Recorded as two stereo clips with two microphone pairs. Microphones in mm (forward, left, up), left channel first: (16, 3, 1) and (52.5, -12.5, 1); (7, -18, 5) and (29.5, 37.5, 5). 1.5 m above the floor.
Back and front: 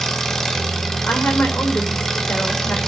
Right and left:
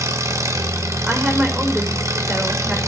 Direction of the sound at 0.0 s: 75° left.